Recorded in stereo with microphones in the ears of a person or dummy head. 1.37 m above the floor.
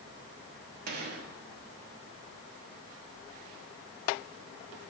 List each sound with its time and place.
0.9 s a gunshot: 50° right (ahead or behind), 1.5 m